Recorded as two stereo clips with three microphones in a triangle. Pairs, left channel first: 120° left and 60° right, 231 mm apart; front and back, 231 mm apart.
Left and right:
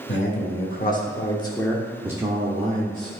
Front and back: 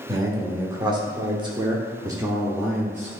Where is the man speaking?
110° left, 1.4 m; by 3.1 s 100° right, 1.4 m.